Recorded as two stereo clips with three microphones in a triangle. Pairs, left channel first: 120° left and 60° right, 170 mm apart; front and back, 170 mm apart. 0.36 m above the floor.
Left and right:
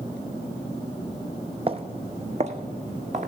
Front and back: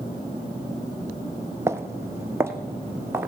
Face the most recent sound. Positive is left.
turn(degrees=-105)